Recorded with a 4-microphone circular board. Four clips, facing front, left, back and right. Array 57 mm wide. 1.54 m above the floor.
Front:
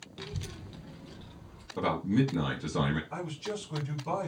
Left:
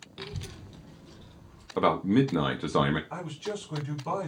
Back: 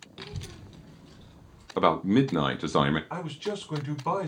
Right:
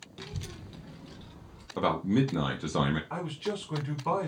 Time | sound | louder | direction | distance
0.2 | a child speaking | left 2 dB, even | 125° left | 0.6 m
1.8 | a man speaking | left 3 dB, back 6 dB | 155° left | 0.7 m
3.1 | a man speaking | right 1 dB, back 3 dB | 155° right | 2 m